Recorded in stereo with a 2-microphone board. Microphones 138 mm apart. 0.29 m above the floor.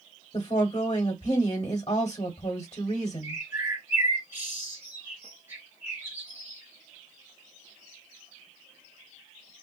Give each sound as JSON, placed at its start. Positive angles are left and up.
{"t": 0.3, "sound": "a woman speaking", "side_deg": 35, "distance_m": 1.3}
{"t": 3.2, "sound": "a bird", "side_deg": -15, "distance_m": 1.7}